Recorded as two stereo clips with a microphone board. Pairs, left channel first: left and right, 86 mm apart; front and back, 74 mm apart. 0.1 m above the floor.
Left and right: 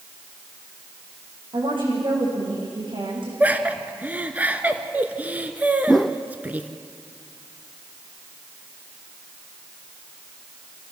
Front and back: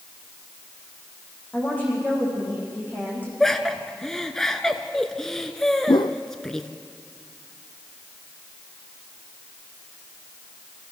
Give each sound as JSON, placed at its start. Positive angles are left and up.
{"t": 1.5, "sound": "a woman speaking", "azimuth_deg": -70, "distance_m": 8.0}
{"t": 3.4, "sound": "laughter", "azimuth_deg": -70, "distance_m": 1.5}
{"t": 5.9, "sound": "a whoosh", "azimuth_deg": 5, "distance_m": 1.0}